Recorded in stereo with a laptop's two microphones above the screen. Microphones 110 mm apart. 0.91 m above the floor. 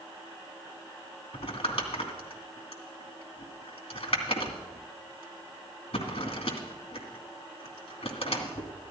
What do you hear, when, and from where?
1.3 s crumpling: 75° left (ahead or behind), 2.5 m